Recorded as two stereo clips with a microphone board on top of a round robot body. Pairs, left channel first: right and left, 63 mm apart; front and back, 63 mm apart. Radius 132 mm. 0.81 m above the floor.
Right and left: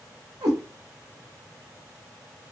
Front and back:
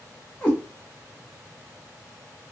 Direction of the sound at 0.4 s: 75° left.